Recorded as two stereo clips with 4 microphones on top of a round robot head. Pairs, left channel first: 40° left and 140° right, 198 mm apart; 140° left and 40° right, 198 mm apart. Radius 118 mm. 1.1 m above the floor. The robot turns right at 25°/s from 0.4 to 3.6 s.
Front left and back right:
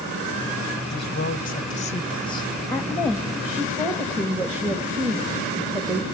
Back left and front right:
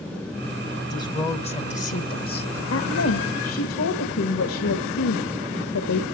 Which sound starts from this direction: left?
A woman speaking, at 0.9 s.